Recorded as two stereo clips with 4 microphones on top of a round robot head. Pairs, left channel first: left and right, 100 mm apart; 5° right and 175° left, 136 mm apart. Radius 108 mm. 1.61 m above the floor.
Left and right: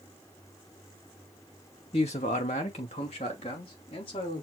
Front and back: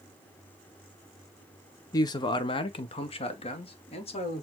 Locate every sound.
1.9 s a man speaking: 50° left, 0.5 m; by 4.4 s 40° left, 1.8 m